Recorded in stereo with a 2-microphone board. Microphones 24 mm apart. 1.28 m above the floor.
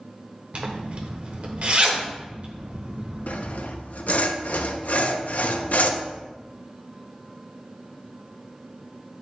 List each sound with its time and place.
0.5 s a zipper: 50° right (ahead or behind), 1.1 m
3.3 s sawing: 70° left (ahead or behind), 0.6 m